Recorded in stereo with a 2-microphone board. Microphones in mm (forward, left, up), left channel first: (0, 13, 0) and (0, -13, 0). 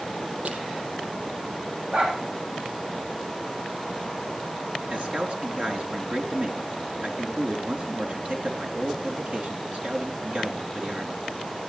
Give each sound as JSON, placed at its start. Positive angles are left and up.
{"t": 0.5, "sound": "crushing", "side_deg": -50, "distance_m": 3.5}
{"t": 1.9, "sound": "a dog barking", "side_deg": -60, "distance_m": 6.0}
{"t": 4.9, "sound": "a man speaking", "side_deg": -60, "distance_m": 4.0}